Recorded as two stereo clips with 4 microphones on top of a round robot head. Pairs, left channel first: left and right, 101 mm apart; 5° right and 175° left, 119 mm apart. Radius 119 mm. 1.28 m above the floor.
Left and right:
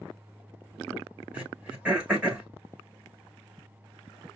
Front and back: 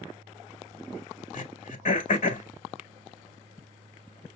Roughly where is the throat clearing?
Ahead.